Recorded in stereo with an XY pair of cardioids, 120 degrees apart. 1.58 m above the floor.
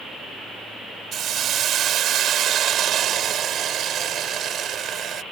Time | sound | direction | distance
1.1 | a hiss | 55° right | ?